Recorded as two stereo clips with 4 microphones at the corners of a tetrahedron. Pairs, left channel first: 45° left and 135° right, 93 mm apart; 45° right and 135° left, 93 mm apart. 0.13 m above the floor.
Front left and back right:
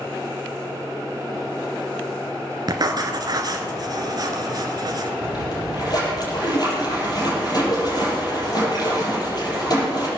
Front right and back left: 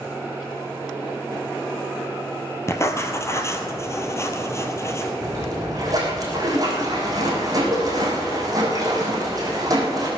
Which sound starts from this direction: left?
A splash, at 5.2 s.